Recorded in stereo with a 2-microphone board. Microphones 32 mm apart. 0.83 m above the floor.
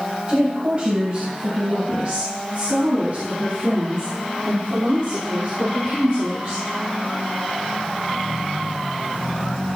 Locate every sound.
0.3 s a woman speaking: 25° right (ahead or behind), 3.5 m; by 6.6 s 45° right (ahead or behind), 11 m